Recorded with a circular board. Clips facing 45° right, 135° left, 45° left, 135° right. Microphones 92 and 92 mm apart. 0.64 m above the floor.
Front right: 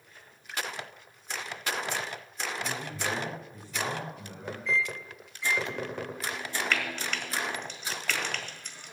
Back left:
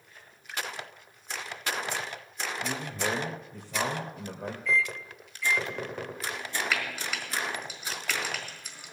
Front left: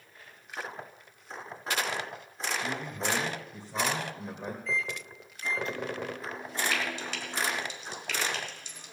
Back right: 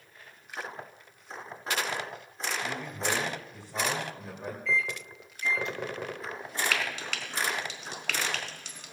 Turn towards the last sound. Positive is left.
turn(degrees=-140)